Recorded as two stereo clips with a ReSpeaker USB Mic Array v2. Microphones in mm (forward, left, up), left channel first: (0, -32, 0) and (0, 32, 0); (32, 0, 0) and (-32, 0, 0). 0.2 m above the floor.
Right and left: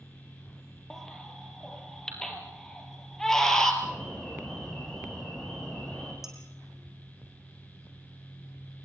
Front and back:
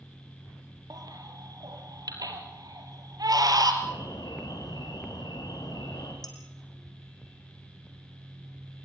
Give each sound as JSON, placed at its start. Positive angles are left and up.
{"t": 0.9, "sound": "a baby crying", "azimuth_deg": -175, "distance_m": 3.0}
{"t": 3.8, "sound": "an alarm", "azimuth_deg": -10, "distance_m": 6.5}
{"t": 6.2, "sound": "dishes clattering", "azimuth_deg": 5, "distance_m": 5.0}